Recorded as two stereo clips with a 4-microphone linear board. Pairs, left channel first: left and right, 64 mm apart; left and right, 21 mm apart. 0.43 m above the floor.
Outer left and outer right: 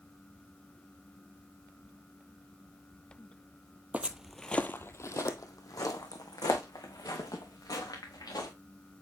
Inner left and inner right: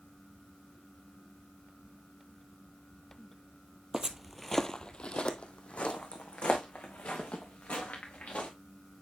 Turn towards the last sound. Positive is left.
turn(degrees=80)